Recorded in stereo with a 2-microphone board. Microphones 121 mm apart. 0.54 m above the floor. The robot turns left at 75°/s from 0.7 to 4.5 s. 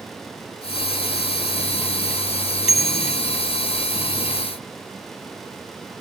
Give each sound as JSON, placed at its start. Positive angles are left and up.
{"t": 2.7, "sound": "a bicycle bell", "azimuth_deg": 120}